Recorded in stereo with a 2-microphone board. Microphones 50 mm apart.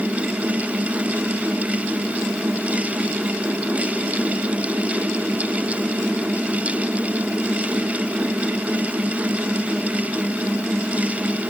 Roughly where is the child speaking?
No child speaking in this recording.